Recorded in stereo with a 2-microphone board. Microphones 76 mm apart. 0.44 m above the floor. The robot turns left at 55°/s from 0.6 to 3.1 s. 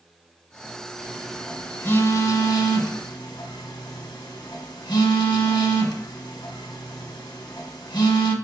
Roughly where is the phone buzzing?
Centre.